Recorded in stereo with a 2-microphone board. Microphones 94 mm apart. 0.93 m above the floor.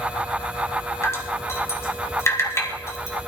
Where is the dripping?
30° left (ahead or behind), 2.5 m.